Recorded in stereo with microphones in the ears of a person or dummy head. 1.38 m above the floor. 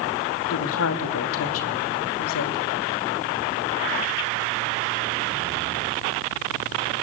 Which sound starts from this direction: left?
A woman speaking, at 0.5 s.